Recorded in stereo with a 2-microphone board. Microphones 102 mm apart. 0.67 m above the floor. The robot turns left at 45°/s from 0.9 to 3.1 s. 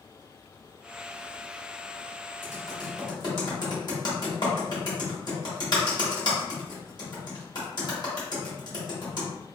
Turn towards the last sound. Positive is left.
turn(degrees=50)  # may be behind; listen again after turning